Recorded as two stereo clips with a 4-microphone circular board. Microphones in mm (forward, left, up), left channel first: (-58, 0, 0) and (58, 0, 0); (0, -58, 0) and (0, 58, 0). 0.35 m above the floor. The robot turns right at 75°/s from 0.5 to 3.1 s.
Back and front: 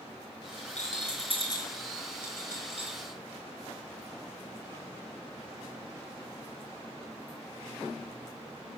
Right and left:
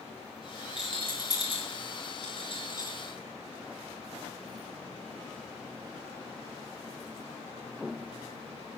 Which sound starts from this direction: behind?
A rattle, at 0.8 s.